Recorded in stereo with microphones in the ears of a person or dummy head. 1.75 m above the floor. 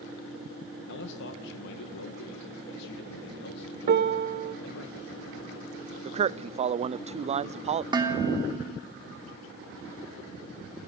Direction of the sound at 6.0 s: 30° right (ahead or behind).